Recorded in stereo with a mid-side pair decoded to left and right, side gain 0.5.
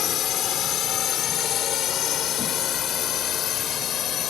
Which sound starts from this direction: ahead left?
A drone, at 0.0 s.